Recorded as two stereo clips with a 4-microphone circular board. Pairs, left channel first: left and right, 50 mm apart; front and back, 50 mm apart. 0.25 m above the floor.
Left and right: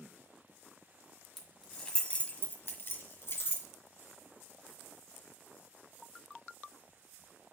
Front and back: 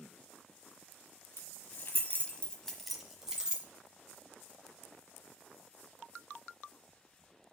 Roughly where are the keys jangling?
Ahead.